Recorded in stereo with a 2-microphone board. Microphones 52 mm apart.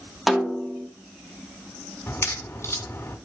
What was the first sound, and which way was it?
A snare drum, 5° right (ahead or behind).